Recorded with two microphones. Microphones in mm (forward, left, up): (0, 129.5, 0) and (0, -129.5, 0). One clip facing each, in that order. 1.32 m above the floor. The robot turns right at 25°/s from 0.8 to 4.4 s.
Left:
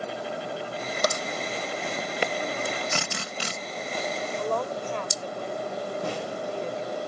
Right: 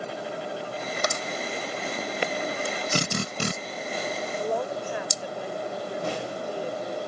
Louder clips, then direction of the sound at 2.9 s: Right 5 dB; 40° right (ahead or behind).